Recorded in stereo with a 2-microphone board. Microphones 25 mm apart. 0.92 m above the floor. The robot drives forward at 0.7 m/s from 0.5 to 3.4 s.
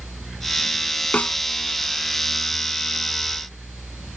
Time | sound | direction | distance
1.1 | a snare drum | 85° left | ?